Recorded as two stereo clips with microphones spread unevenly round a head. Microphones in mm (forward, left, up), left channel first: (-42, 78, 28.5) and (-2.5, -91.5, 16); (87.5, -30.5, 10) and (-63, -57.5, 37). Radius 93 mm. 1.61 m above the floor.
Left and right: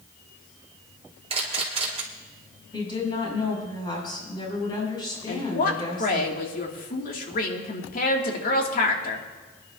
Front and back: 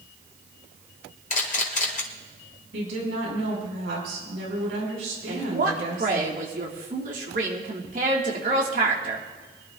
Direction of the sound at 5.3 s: 140° left.